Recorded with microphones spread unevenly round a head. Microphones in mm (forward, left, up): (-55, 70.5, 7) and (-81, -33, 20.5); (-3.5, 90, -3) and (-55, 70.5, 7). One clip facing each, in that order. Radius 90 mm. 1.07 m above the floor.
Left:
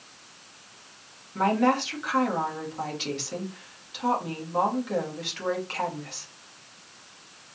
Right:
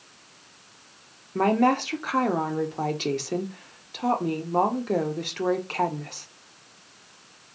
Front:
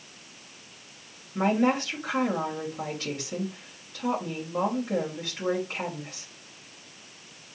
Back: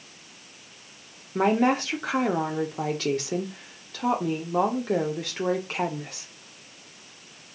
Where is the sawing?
I don't hear sawing.